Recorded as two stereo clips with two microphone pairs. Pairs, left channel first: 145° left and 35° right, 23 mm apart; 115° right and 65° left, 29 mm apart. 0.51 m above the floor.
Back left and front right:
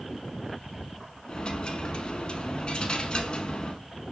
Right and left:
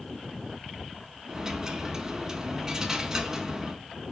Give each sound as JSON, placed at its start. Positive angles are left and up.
{"t": 1.3, "sound": "a dropped coin", "azimuth_deg": 130, "distance_m": 0.5}